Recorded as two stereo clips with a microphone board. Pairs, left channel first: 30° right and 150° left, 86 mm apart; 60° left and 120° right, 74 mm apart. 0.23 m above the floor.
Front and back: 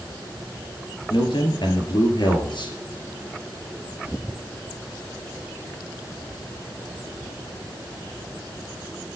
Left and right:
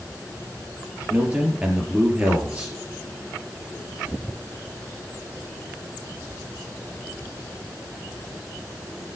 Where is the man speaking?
50° right, 3.5 m.